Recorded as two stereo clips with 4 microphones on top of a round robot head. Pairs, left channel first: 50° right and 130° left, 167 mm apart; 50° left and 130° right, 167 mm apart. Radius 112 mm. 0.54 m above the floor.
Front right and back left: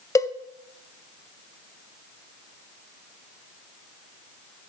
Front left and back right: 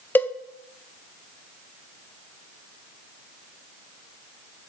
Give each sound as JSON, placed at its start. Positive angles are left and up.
{"t": 0.1, "sound": "a cowbell", "azimuth_deg": -10, "distance_m": 0.7}